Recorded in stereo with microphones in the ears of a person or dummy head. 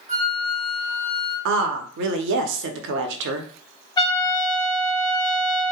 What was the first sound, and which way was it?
A flute, 30° right (ahead or behind).